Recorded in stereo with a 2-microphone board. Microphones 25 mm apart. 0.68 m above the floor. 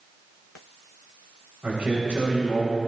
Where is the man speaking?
75° right (ahead or behind), 3.5 m.